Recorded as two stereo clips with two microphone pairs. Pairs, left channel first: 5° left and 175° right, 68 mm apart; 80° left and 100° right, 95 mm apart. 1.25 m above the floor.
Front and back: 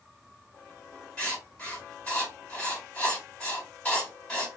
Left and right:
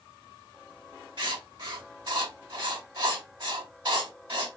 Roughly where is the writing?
Right.